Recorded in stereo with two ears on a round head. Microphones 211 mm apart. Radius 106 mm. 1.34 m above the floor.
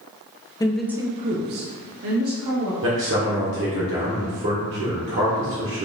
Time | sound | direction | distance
0.6 | a woman speaking | 15° left (ahead or behind) | 0.6 m
2.8 | a man speaking | 50° right (ahead or behind) | 1.0 m